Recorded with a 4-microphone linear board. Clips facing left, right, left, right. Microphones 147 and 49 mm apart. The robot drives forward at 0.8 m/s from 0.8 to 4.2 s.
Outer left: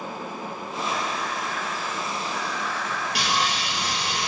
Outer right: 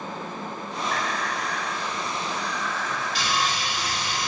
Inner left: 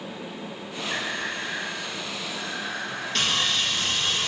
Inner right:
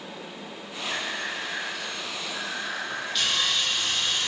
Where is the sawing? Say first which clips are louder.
Outer left 1 dB, inner left 2 dB; 65° left (ahead or behind), 4 m.